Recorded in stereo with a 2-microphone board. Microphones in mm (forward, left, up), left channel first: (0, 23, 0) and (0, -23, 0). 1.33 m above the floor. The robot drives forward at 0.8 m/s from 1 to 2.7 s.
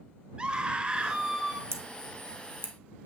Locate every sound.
0.4 s a scream: 25° right (ahead or behind), 1.2 m; by 1.6 s 15° right (ahead or behind), 1.7 m
1.7 s scissors: 75° right (ahead or behind), 1.0 m; by 2.7 s 55° right (ahead or behind), 1.2 m